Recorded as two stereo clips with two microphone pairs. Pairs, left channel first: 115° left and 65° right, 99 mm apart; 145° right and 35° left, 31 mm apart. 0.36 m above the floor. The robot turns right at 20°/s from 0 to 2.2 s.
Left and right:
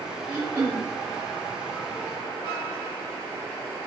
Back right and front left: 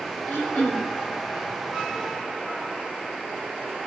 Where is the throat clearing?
140° right, 3 m; by 0.9 s 125° right, 3 m.